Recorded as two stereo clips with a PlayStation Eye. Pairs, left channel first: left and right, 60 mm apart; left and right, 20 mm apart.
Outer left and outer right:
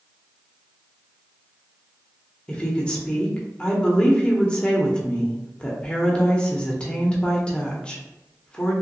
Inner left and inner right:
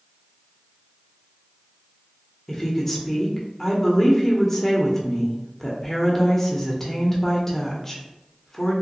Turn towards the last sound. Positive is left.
turn(degrees=15)  # may be behind; listen again after turning